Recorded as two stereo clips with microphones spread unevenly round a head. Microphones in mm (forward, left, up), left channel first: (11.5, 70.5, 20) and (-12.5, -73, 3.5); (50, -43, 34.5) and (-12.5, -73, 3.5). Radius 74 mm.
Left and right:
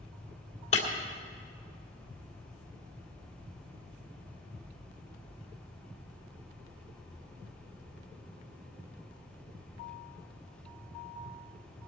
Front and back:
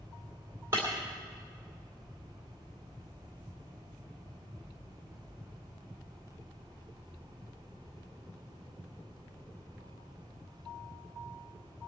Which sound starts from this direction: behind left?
Breaking glass, at 0.7 s.